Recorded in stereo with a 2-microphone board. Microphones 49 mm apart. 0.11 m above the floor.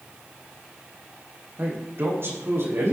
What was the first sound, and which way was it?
A man speaking, 50° right (ahead or behind).